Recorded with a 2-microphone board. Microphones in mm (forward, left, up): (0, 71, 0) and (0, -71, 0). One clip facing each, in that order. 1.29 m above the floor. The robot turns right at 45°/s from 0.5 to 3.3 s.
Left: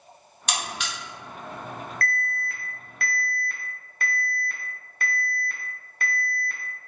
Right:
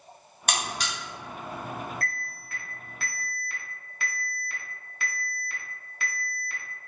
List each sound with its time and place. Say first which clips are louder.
0.5 s a buzzer: right 1 dB; 55° right (ahead or behind), 1.3 m; by 0.9 s 35° right (ahead or behind), 1.3 m
2.0 s an alarm: left 7 dB; 70° left, 1.0 m; by 6.6 s 130° left, 1.0 m